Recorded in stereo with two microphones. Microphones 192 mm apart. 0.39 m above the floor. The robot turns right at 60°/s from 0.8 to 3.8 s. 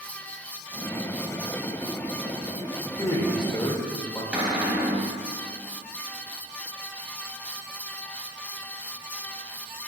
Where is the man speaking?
15° left (ahead or behind), 1.3 m; by 4.2 s 25° left (ahead or behind), 1.3 m.